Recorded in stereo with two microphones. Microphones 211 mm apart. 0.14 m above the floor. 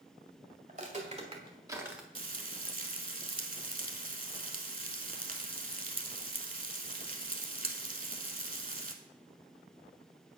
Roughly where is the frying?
Right.